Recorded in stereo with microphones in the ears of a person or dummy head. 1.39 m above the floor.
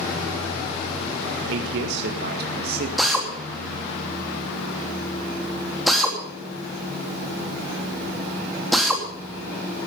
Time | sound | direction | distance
1.5 | a man speaking | 75° right (ahead or behind) | 1.4 m
3.0 | a drill | centre (ahead or behind) | 3 m